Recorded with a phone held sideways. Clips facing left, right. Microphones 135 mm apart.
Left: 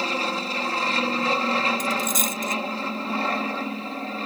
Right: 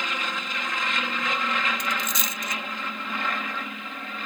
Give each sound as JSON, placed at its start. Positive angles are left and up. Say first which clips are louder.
{"t": 0.0, "sound": "an aircraft", "louder": "left 5 dB", "side_deg": 35}
{"t": 1.8, "sound": "a dropped coin", "louder": "left 5 dB", "side_deg": 50}